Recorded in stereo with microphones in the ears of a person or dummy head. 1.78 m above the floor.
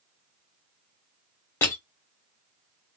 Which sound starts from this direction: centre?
Crushing, at 1.6 s.